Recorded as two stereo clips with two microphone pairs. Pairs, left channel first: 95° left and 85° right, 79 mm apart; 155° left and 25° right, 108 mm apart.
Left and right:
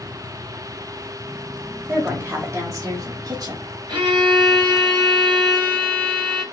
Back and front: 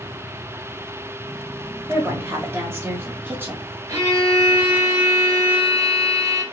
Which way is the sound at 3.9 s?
80° right.